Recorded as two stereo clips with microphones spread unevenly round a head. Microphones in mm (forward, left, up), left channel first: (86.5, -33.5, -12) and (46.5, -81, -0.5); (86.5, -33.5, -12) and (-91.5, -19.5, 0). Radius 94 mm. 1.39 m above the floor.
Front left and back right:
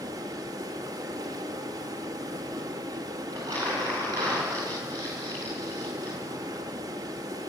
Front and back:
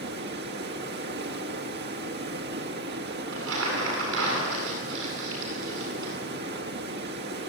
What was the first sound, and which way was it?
Running water, 160° right.